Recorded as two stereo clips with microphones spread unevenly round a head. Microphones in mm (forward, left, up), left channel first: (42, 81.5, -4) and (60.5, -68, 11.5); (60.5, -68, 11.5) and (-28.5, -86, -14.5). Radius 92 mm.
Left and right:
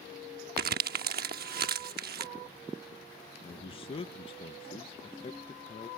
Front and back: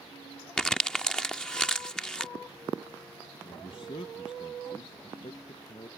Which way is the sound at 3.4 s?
65° left.